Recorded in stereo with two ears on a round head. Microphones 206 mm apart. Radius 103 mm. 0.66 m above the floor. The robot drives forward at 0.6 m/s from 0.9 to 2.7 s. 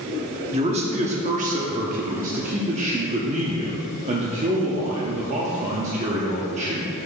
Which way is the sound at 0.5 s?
30° right (ahead or behind).